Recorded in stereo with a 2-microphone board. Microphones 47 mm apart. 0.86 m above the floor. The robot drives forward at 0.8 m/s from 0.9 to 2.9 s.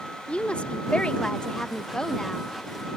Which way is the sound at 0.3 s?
25° left (ahead or behind).